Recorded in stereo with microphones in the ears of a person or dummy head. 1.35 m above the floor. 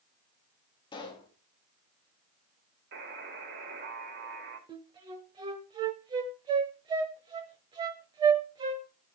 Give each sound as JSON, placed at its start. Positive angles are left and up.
{"t": 0.9, "sound": "a pop", "side_deg": 25, "distance_m": 2.5}
{"t": 2.9, "sound": "a buzzer", "side_deg": -50, "distance_m": 3.5}
{"t": 4.7, "sound": "a flute", "side_deg": -20, "distance_m": 1.2}